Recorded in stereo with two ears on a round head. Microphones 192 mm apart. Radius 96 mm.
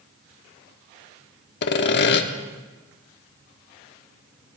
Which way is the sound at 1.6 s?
55° left (ahead or behind).